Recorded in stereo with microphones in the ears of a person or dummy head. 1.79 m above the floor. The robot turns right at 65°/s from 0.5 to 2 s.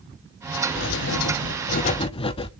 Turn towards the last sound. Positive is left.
turn(degrees=145)